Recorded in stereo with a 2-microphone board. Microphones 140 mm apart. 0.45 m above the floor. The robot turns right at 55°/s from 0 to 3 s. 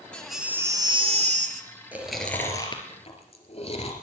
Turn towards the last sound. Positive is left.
turn(degrees=50)  # may be behind; listen again after turning